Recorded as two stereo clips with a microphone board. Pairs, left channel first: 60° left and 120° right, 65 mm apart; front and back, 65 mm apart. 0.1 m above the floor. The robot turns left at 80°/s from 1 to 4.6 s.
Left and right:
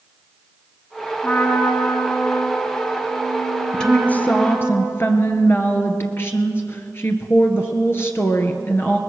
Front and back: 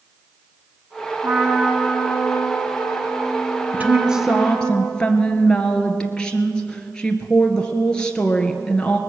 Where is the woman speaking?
140° left, 1.8 m; by 9.0 s 70° left, 1.8 m.